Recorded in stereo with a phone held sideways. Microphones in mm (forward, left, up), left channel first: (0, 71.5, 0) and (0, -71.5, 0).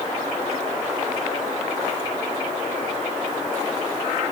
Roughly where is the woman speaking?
I don't hear a woman speaking.